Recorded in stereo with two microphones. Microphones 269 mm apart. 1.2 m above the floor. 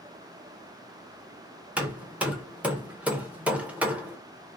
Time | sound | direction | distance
1.8 | hammering | 5° right (ahead or behind) | 0.5 m